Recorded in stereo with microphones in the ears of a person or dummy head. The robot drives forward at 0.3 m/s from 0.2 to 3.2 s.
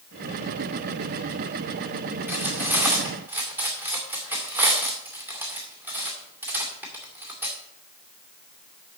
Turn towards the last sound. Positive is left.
turn(degrees=-15)  # may be behind; listen again after turning